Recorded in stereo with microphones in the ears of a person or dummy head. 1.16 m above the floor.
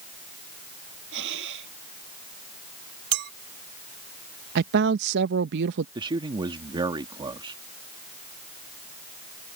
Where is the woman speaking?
55° right (ahead or behind).